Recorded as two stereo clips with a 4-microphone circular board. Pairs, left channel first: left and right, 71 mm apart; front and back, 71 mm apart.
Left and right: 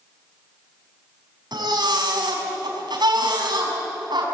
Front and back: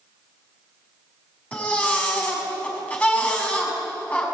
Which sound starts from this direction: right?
A baby crying, at 1.5 s.